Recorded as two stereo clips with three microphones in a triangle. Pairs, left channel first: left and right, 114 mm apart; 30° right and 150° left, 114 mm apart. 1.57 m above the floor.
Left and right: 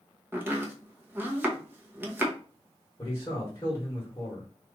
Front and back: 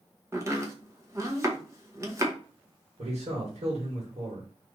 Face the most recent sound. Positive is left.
turn(degrees=160)